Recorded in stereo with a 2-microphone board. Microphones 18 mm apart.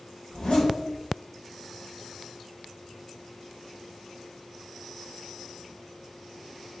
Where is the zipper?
80° left, 3.5 m.